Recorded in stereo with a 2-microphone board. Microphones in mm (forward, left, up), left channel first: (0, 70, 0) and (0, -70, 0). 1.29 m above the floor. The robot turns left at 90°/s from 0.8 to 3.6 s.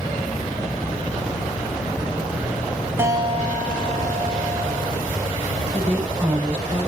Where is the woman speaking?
45° right (ahead or behind), 5.5 m.